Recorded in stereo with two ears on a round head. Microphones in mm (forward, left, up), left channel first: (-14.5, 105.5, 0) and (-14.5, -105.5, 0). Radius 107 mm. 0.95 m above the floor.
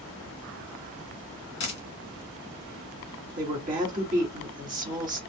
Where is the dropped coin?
30° left (ahead or behind), 1.1 m.